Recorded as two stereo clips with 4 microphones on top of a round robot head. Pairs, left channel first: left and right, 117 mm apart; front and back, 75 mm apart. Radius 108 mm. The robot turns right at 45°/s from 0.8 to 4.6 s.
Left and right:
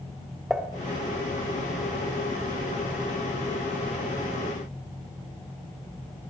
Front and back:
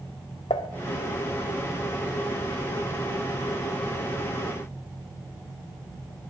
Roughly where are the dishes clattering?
Ahead.